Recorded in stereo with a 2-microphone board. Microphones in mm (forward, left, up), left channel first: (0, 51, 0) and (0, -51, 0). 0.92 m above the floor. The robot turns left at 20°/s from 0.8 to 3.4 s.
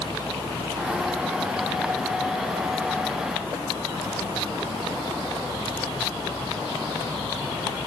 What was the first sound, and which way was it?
Only background noise.